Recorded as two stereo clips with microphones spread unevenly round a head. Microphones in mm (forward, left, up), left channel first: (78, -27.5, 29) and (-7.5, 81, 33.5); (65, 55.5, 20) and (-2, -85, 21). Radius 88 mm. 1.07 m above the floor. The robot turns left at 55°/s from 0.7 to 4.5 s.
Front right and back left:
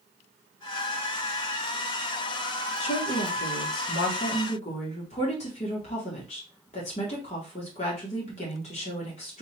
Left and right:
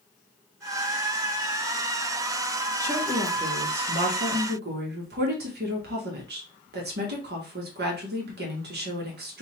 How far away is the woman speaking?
About 1.6 m.